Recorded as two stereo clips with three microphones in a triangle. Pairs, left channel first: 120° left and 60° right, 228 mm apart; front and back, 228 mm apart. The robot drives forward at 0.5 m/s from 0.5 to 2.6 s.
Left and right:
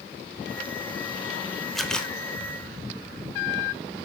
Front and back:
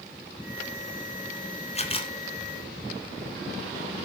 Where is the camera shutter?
30° left, 1.5 m; by 2.1 s 40° left, 1.4 m.